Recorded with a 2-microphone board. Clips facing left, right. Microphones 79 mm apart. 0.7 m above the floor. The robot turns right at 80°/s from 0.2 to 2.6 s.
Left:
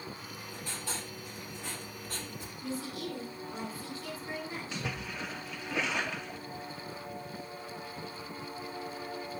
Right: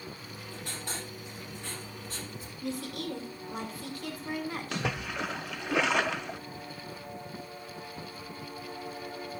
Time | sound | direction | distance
0.2 | writing | 105° right | 5 m
2.6 | a woman speaking | 80° right | 2.5 m
4.7 | a splash | 75° right (ahead or behind) | 0.5 m